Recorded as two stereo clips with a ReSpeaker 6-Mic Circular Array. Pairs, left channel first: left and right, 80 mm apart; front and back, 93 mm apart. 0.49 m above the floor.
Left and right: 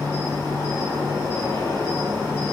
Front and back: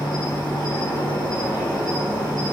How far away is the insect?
About 1.3 m.